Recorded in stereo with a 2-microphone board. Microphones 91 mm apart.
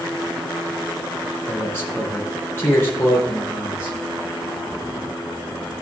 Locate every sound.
1.5 s a man speaking: 25° left (ahead or behind), 8 m